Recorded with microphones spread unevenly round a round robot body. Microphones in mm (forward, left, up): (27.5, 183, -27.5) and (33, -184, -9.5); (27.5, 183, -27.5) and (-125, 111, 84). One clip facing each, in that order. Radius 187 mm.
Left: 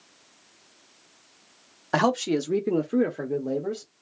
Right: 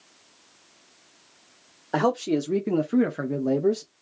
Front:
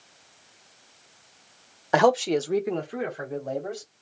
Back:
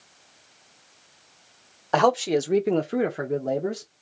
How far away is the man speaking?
About 0.7 m.